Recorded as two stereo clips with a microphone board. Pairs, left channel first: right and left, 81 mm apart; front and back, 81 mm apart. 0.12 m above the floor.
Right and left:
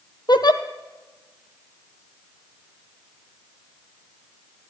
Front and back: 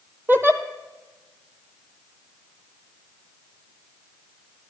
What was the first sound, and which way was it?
A giggle, 120° right.